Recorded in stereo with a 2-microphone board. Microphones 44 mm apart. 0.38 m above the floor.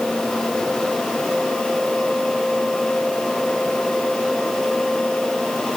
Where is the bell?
I don't hear a bell.